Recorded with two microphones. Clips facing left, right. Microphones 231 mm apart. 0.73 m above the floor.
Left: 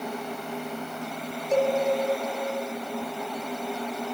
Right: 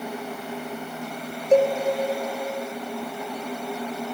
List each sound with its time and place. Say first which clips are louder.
1.5 s a cowbell: right 5 dB; 55° right (ahead or behind), 1.4 m